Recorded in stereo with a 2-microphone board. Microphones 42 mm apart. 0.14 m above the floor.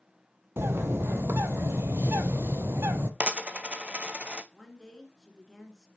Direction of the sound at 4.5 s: 15° left (ahead or behind).